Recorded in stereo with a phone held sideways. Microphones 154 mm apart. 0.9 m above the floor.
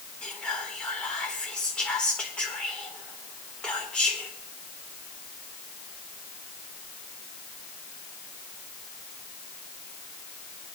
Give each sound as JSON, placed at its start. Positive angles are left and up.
{"t": 0.2, "sound": "whispering", "side_deg": 10, "distance_m": 1.3}